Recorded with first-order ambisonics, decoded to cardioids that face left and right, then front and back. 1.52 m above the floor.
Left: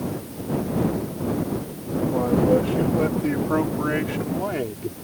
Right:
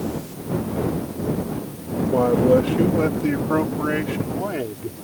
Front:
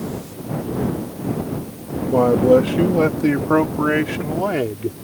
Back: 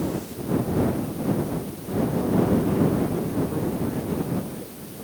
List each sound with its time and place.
2.1 s a man speaking: 25° right; by 4.9 s 5° left